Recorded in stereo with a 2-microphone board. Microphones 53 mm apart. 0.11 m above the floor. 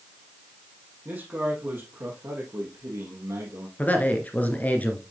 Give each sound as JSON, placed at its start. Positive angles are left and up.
{"t": 1.1, "sound": "a man speaking", "side_deg": -30, "distance_m": 4.0}
{"t": 3.8, "sound": "a man speaking", "side_deg": 30, "distance_m": 1.7}